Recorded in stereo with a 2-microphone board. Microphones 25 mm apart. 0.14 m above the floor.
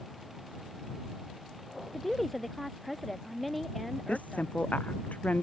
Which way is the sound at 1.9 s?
Centre (ahead or behind).